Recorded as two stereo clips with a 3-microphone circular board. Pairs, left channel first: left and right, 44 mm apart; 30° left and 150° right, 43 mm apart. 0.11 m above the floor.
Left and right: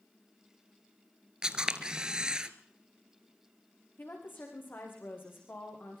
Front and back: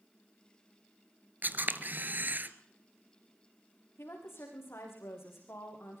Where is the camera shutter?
155° right, 1.1 m.